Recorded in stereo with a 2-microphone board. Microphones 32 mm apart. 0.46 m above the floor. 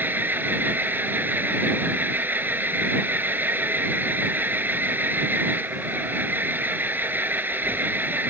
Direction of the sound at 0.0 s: 85° right.